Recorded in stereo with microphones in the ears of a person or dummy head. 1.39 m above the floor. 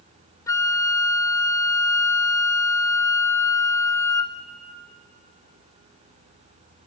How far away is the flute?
About 0.9 m.